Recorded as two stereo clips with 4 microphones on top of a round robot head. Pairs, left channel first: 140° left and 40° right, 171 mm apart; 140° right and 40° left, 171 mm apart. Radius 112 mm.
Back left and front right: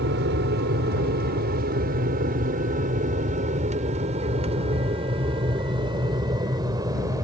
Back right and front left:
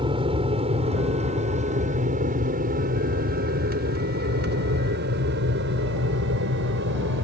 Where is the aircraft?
20° right; by 7.2 s 30° left.